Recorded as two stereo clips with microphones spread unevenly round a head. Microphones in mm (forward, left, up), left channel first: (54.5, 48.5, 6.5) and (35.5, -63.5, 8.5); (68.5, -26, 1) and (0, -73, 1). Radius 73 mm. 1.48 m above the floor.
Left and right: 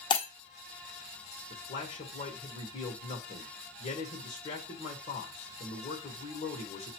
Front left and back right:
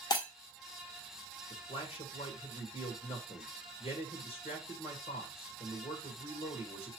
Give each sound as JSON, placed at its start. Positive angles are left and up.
{"t": 0.1, "sound": "breaking glass", "azimuth_deg": 55, "distance_m": 1.0}
{"t": 1.5, "sound": "a man speaking", "azimuth_deg": 70, "distance_m": 1.3}